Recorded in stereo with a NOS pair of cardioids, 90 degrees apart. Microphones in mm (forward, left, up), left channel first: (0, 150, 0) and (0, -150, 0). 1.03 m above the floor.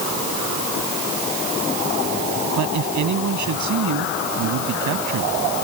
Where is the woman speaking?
70° right; by 5.3 s 80° right.